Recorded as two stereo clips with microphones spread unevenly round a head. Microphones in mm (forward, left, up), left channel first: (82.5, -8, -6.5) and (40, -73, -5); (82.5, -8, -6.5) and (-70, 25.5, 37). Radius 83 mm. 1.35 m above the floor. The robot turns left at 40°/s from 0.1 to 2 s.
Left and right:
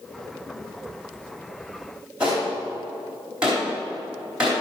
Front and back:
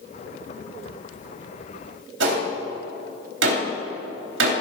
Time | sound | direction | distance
2.2 | a gunshot | 150° left | 3 m